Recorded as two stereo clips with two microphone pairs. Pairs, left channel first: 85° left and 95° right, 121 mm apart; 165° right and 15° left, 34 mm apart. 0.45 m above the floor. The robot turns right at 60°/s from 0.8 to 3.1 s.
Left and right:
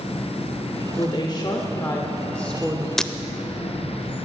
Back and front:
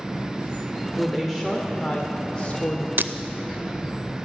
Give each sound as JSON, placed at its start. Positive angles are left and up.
{"t": 1.0, "sound": "a woman speaking", "azimuth_deg": 70, "distance_m": 1.1}
{"t": 3.0, "sound": "breaking glass", "azimuth_deg": -5, "distance_m": 0.5}